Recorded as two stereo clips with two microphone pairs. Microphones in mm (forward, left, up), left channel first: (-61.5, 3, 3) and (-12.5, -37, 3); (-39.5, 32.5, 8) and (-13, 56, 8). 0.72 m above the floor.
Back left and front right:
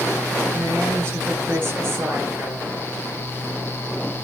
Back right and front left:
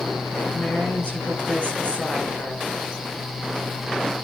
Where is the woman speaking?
90° right, 10 m.